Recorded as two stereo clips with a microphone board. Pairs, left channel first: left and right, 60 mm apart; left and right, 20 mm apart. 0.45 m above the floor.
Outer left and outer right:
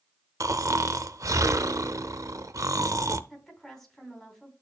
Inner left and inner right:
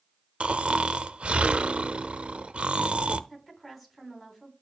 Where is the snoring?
65° right (ahead or behind), 0.5 m.